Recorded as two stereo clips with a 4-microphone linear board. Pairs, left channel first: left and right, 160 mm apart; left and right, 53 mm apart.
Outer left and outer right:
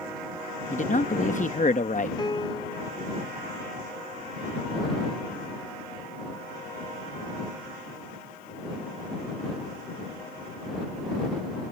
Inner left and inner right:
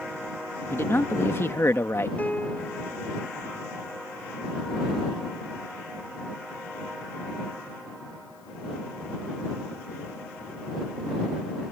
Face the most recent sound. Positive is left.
turn(degrees=30)  # may be behind; listen again after turning